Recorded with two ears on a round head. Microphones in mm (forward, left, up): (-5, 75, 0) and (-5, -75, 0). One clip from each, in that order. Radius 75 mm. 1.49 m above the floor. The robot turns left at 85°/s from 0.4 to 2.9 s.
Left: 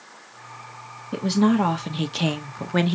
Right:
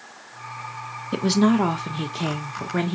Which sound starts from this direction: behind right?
A woman speaking, at 1.1 s.